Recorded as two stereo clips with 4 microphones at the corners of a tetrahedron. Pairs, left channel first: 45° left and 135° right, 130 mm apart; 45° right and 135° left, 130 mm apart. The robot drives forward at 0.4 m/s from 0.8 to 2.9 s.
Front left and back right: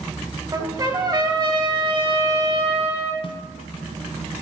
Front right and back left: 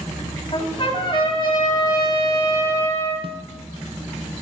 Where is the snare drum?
90° left, 1.0 m.